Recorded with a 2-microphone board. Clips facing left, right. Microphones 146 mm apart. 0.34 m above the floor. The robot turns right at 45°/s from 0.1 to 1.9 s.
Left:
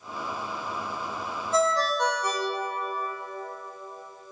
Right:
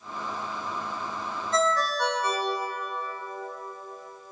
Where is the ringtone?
10° left (ahead or behind), 0.9 m; by 4.3 s 15° left (ahead or behind), 0.9 m.